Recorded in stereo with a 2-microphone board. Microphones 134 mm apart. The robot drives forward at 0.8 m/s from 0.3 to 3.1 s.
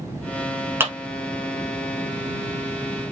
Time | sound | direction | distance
0.8 | a clap | 15° right (ahead or behind) | 1.1 m